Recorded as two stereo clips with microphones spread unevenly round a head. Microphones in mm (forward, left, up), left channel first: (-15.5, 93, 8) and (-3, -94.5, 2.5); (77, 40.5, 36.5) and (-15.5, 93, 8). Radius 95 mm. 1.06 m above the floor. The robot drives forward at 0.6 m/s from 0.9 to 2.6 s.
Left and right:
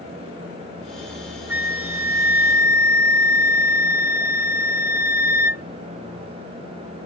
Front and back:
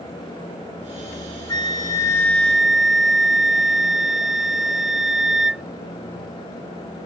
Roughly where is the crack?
I don't hear a crack.